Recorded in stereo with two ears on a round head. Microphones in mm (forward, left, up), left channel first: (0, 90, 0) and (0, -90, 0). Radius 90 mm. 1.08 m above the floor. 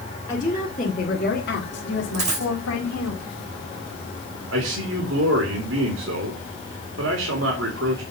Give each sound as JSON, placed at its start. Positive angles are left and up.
{"t": 0.3, "sound": "a woman speaking", "side_deg": 20, "distance_m": 2.5}
{"t": 2.1, "sound": "a dropped coin", "side_deg": -35, "distance_m": 4.0}
{"t": 4.5, "sound": "a man speaking", "side_deg": -75, "distance_m": 2.5}